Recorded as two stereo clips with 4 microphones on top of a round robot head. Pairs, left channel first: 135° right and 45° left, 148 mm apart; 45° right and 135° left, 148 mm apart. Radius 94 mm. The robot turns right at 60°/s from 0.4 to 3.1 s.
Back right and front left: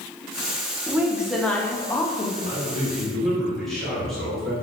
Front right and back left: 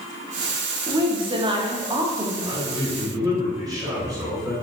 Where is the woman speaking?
105° left, 0.7 m; by 2.3 s 165° right, 0.7 m.